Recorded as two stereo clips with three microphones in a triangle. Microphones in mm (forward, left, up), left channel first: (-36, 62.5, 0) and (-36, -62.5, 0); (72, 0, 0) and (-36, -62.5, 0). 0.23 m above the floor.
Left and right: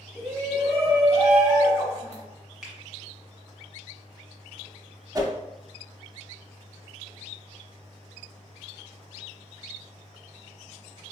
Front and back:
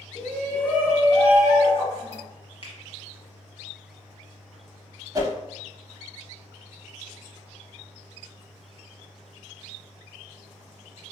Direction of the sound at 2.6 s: 5° right.